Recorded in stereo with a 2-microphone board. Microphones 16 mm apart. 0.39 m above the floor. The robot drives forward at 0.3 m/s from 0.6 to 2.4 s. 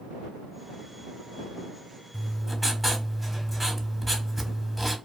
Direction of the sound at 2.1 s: 5° left (ahead or behind).